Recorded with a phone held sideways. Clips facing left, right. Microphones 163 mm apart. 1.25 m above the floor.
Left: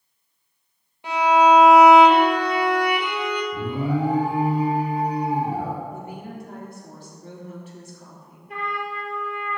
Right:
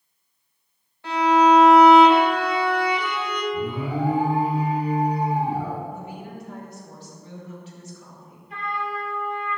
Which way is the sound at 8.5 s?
70° left (ahead or behind).